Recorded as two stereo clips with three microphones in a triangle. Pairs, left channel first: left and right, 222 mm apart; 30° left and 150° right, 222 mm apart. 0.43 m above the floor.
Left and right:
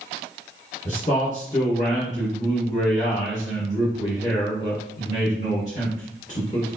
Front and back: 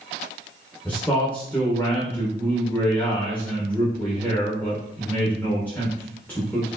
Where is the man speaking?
105° left, 1.3 m.